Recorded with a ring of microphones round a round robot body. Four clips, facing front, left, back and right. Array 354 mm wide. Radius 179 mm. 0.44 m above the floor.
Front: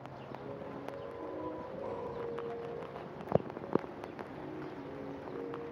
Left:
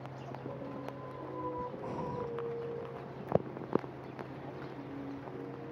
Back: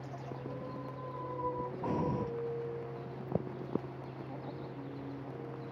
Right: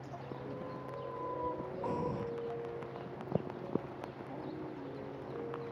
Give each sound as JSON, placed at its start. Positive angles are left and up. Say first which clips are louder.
{"t": 1.8, "sound": "breathing", "louder": "right 2 dB, back 6 dB", "azimuth_deg": -175}